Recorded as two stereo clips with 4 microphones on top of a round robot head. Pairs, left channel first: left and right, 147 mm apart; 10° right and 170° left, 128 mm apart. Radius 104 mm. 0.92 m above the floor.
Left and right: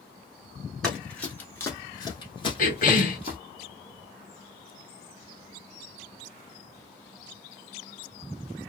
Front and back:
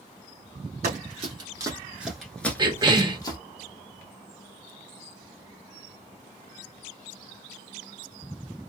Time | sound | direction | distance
0.8 | running footsteps | 175° left | 1.2 m
2.6 | a cough | 115° left | 1.4 m